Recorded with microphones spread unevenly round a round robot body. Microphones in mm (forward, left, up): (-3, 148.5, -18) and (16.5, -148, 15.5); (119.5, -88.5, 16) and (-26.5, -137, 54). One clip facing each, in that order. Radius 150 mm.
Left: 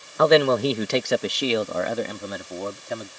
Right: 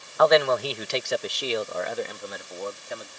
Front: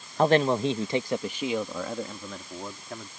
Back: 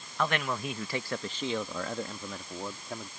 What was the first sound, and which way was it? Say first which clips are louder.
A man speaking: left 3 dB, front 10 dB; 45° left.